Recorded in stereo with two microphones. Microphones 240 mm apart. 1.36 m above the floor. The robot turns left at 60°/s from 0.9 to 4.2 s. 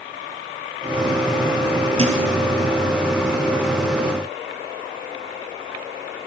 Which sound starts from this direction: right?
A thud, at 2.0 s.